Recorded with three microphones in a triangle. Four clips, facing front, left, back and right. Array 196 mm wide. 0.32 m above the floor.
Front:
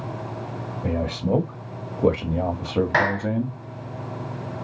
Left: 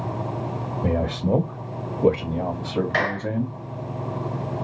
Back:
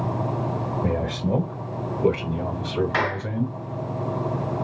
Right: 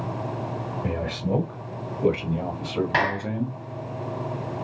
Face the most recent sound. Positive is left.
turn(degrees=-45)